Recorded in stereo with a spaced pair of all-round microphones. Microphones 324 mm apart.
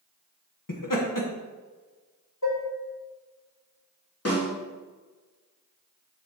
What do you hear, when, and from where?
0.7 s laughter: 75° left (ahead or behind), 1.4 m
2.4 s dishes clattering: 60° left (ahead or behind), 2.5 m
4.2 s a snare drum: 45° left (ahead or behind), 3 m